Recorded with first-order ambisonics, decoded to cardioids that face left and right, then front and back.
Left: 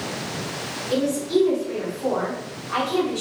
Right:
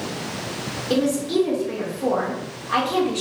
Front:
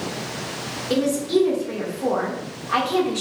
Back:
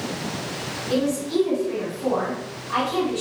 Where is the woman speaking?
45° right, 1.7 m.